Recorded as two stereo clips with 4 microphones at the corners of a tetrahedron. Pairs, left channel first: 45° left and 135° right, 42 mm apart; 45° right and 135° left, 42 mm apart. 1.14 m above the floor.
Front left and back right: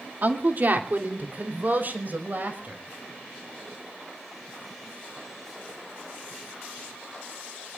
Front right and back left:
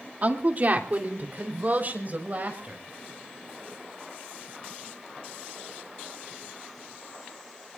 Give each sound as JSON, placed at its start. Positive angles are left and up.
{"t": 0.2, "sound": "a woman speaking", "azimuth_deg": -175, "distance_m": 2.0}